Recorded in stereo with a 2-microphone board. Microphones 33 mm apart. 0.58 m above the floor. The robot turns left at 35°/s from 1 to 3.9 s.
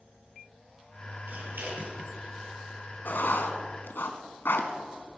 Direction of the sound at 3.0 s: 60° left (ahead or behind).